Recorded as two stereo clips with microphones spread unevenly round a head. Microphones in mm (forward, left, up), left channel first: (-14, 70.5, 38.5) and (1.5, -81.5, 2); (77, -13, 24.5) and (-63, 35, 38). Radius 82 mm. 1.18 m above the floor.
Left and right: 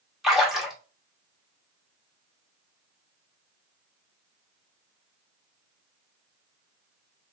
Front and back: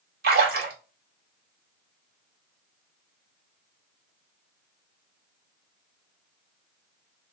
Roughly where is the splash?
Behind.